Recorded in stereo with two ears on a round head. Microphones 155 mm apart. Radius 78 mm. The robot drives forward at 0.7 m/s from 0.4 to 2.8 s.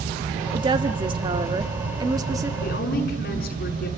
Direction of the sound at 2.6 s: 55° left (ahead or behind).